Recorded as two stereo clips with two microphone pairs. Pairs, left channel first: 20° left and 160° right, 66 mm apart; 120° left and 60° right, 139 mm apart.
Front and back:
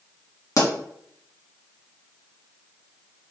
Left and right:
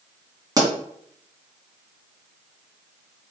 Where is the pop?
Straight ahead, 1.6 m.